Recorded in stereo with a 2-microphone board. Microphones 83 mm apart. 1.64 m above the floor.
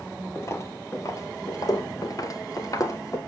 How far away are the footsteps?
About 3 m.